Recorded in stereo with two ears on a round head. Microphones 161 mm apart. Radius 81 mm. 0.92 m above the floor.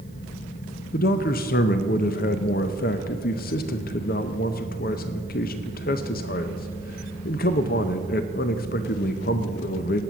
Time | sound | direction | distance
0.9 | a man speaking | 50° left (ahead or behind) | 0.7 m